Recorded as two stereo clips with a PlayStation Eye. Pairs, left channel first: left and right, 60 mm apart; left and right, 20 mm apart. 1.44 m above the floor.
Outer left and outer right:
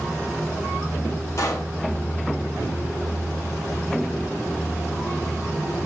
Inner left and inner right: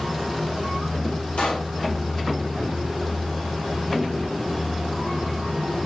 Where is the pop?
55° left (ahead or behind), 6 m.